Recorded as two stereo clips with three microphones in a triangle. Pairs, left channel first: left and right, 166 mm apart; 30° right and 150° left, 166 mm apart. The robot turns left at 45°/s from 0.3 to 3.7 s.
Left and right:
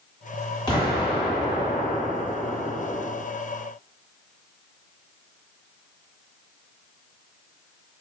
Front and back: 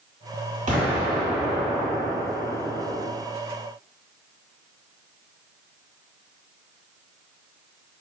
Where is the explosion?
145° left, 1.6 m; by 3.1 s 40° left, 1.6 m.